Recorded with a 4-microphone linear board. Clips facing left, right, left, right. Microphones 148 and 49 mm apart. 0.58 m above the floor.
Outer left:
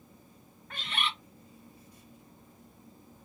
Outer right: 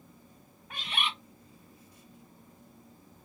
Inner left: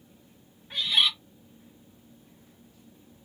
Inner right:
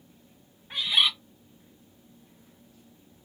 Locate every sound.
0.7 s a bird: 15° right (ahead or behind), 1.1 m